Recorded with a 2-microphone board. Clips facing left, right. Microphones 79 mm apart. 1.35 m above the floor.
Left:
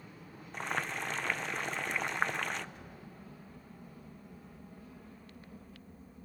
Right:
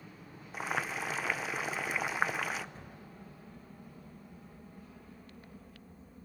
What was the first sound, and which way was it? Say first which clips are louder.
Boiling: right 1 dB; 5° right (ahead or behind).